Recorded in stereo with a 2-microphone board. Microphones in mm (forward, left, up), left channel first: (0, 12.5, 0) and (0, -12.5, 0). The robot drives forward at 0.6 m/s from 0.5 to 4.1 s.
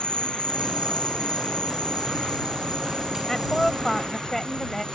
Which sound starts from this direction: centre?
A woman speaking, at 3.3 s.